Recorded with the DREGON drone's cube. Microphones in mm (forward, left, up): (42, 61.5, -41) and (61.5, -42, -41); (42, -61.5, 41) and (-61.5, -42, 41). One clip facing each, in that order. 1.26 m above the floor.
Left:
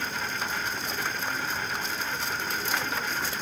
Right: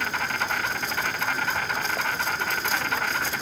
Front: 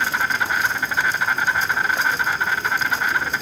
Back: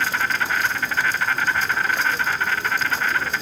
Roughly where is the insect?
Right.